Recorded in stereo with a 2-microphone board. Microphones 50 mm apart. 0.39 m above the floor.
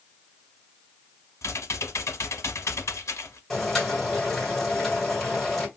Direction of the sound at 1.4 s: 80° left.